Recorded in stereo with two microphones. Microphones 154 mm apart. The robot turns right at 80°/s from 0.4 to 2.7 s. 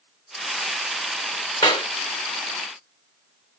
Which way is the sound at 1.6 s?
30° left (ahead or behind).